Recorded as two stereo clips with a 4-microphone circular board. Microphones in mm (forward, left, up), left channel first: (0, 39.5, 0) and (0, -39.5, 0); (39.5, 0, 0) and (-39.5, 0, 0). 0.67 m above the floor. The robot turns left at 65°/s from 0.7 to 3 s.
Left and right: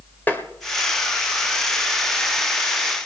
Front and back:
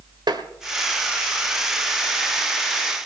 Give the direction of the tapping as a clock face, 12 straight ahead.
7 o'clock.